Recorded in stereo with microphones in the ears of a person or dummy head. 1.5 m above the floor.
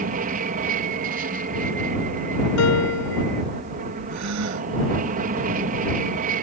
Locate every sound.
0.0 s an aircraft: 40° right (ahead or behind)
2.6 s a piano: 85° left
4.1 s a gasp: 80° right